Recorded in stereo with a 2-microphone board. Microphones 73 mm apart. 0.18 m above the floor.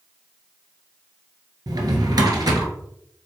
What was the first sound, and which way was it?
A drawer, 65° right (ahead or behind).